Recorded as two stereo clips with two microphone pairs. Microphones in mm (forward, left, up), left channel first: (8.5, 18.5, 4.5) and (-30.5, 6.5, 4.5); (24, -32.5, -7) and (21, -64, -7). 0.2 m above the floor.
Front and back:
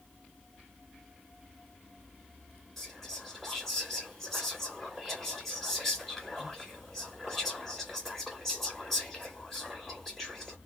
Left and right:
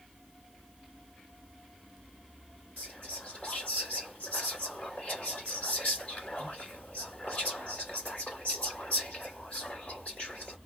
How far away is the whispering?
About 2 m.